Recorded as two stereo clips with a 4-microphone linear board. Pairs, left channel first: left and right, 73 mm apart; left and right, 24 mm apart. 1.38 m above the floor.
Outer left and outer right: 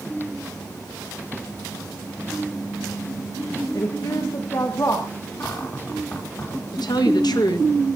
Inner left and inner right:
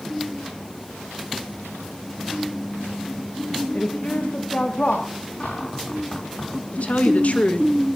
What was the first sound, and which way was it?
A woman speaking, 60° left (ahead or behind).